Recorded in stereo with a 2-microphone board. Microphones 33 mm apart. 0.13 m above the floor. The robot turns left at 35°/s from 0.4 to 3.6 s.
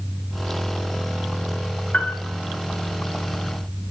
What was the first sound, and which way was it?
A piano, 40° left (ahead or behind).